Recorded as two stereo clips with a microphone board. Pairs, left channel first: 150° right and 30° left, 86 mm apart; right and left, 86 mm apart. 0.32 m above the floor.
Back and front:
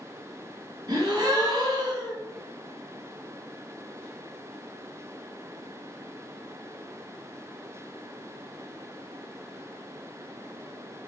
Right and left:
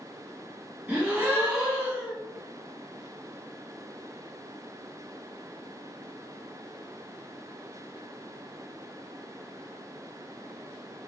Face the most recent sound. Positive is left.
turn(degrees=30)